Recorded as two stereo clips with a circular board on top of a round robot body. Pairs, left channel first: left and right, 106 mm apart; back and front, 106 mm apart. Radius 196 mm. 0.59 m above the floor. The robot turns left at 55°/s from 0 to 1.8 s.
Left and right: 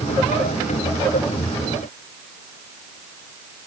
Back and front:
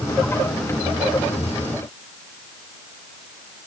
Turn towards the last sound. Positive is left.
No sound to turn to.